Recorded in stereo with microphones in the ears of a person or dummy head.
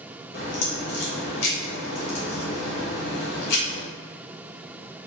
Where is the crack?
60° left (ahead or behind), 1.6 m.